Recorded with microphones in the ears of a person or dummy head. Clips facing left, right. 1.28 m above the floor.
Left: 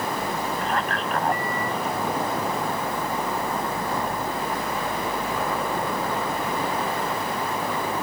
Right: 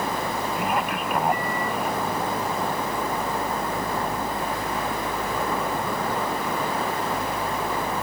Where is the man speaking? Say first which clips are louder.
Right 1 dB; 10° right (ahead or behind).